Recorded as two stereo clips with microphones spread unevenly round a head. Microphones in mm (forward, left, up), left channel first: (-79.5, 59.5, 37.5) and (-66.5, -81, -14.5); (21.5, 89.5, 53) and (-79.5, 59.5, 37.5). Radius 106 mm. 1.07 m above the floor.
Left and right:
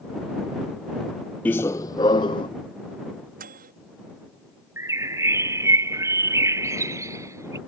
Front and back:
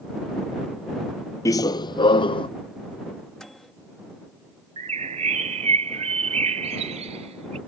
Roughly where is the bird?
Behind.